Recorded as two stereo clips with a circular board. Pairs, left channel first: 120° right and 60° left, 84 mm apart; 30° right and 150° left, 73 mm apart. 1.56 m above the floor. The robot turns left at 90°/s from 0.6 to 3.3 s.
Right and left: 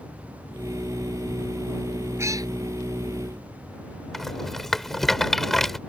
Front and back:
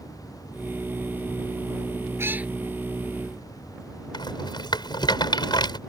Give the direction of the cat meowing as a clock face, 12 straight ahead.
8 o'clock.